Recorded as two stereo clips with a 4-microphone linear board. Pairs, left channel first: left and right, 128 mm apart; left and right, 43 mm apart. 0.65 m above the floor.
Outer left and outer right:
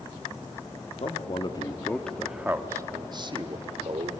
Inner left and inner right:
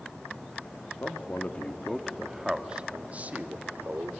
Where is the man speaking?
50° left (ahead or behind), 1.2 m; by 4.1 s 50° right (ahead or behind), 2.0 m.